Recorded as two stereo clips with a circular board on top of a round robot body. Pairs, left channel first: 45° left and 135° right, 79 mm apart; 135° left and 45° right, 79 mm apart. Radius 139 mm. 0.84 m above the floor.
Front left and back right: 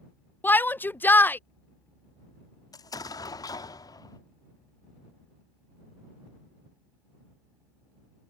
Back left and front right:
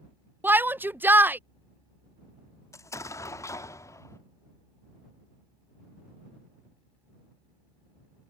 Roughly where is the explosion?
Left.